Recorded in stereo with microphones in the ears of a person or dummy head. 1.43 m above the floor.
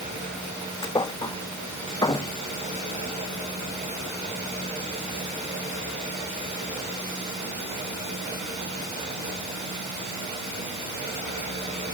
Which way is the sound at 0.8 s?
15° left (ahead or behind).